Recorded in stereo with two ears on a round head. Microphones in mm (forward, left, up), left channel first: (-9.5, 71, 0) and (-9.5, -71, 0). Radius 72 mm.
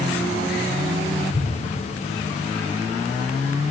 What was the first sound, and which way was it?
An explosion, 35° right (ahead or behind).